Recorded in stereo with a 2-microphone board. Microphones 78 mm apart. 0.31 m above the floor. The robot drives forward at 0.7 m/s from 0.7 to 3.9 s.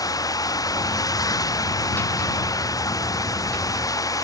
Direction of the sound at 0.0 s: 50° left (ahead or behind).